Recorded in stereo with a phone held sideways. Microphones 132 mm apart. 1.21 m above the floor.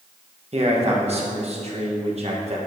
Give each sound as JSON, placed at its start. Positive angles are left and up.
{"t": 0.5, "sound": "a man speaking", "side_deg": -50, "distance_m": 1.5}